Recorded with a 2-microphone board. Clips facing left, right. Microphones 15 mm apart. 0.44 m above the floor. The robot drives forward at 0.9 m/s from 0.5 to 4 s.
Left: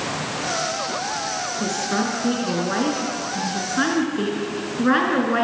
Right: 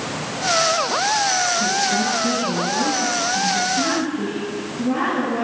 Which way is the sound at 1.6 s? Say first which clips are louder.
Right 4 dB; 65° left (ahead or behind).